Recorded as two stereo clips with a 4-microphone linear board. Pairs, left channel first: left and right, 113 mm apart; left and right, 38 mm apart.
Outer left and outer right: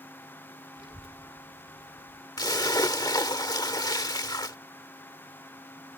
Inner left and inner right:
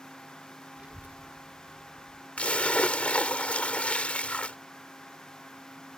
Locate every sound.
0.8 s a child speaking: 40° right (ahead or behind); by 2.3 s 55° right (ahead or behind)
2.4 s a splash: 40° left (ahead or behind)